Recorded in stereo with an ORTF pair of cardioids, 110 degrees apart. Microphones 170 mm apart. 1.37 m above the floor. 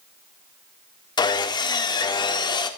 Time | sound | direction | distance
1.2 | sawing | 25° left | 2 m